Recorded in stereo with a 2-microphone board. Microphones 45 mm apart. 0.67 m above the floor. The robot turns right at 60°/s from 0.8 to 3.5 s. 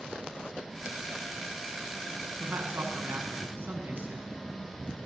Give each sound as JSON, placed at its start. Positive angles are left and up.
{"t": 2.4, "sound": "a man speaking", "azimuth_deg": -125, "distance_m": 6.5}